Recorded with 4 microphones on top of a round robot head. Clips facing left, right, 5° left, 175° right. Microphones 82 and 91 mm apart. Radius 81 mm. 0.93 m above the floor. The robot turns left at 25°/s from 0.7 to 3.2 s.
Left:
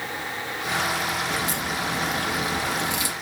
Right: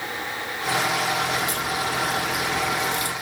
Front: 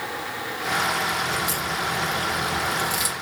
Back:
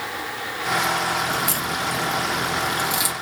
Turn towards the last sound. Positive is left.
turn(degrees=105)